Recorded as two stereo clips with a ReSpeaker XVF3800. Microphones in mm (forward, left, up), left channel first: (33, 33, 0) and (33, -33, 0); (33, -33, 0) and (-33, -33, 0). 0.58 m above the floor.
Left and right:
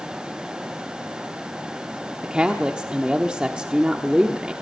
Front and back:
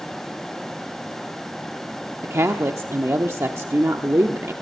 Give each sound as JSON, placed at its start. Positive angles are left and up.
{"t": 2.2, "sound": "a woman speaking", "azimuth_deg": -160, "distance_m": 0.9}